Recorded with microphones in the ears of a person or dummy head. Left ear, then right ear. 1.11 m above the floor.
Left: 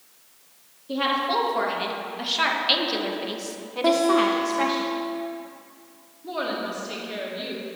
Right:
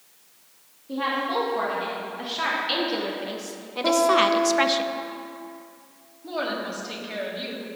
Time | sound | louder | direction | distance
0.9 | a woman speaking | left 2 dB | 30° left (ahead or behind) | 1.9 m
3.8 | a guitar | right 1 dB | 30° left (ahead or behind) | 0.9 m
6.2 | a woman speaking | even | 5° right (ahead or behind) | 1.8 m